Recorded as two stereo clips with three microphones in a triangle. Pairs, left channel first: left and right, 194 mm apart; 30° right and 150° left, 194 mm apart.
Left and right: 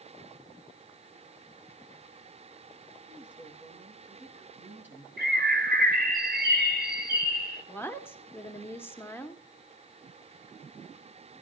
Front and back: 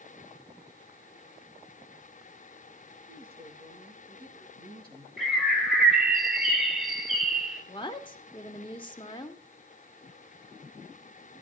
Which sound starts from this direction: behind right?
A bird, at 5.2 s.